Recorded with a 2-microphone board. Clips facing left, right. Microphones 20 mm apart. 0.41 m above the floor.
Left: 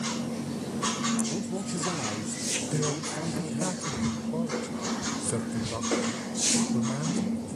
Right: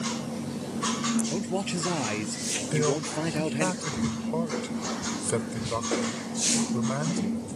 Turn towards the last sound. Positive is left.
turn(degrees=-35)  # may be behind; listen again after turning